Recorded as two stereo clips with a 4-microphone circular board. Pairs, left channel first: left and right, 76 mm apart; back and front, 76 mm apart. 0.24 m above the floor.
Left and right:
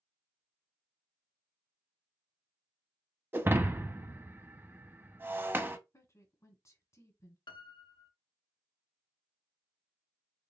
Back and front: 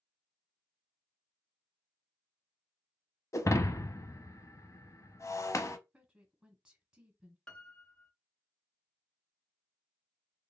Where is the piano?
100° left, 0.6 m.